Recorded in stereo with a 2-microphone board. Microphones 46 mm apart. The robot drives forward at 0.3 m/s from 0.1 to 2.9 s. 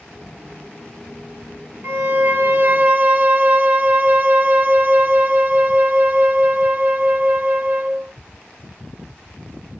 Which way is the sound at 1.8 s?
45° right (ahead or behind).